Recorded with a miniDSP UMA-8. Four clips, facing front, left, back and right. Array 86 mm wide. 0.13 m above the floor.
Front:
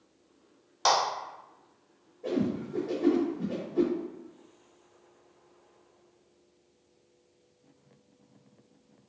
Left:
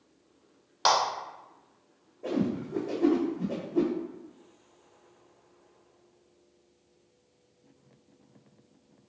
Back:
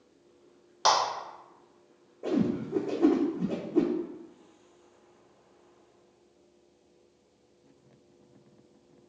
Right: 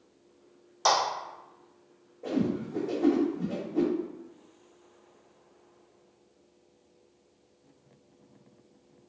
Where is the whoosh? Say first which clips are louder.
Even, back 2 dB; straight behind, 1.0 m.